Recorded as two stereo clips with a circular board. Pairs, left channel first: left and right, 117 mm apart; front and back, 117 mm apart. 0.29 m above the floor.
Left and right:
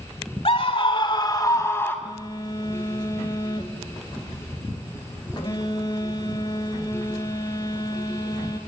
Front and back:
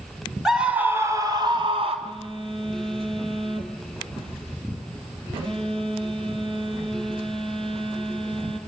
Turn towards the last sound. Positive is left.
turn(degrees=140)